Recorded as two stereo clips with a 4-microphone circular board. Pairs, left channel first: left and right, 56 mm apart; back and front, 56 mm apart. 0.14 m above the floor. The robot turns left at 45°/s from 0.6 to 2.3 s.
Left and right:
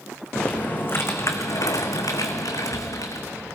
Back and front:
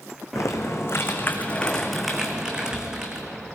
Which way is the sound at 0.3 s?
155° left.